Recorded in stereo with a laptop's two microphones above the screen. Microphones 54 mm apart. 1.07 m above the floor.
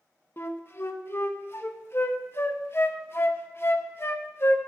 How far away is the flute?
About 0.5 m.